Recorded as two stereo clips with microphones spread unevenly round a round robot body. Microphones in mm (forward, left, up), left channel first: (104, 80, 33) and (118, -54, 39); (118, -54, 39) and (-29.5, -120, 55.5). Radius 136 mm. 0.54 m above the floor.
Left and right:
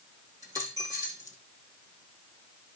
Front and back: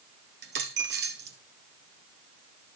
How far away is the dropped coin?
About 1.6 m.